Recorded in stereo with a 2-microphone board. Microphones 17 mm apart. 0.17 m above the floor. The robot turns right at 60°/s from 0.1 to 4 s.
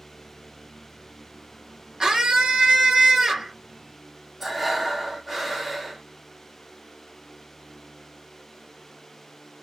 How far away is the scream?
About 2.5 m.